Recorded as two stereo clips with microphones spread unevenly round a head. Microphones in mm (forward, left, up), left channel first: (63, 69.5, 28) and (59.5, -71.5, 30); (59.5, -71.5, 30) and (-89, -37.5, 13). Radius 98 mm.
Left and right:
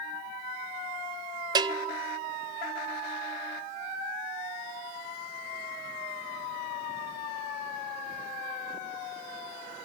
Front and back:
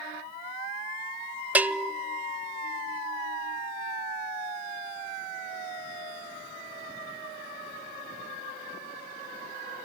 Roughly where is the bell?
Behind right.